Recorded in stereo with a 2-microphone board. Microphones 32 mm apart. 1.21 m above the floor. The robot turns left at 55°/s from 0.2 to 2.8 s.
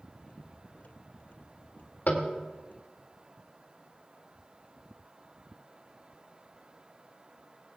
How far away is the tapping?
About 2 m.